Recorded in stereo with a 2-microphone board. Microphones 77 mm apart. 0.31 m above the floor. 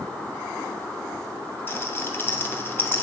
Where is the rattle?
30° left (ahead or behind), 2.0 m.